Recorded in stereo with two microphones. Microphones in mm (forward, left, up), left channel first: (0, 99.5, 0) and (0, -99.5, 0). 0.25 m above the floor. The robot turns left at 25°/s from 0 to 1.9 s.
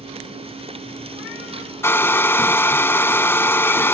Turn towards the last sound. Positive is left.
turn(degrees=10)  # may be behind; listen again after turning